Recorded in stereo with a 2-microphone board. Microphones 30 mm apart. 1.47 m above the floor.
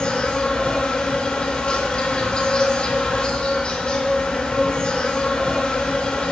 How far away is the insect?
About 2 m.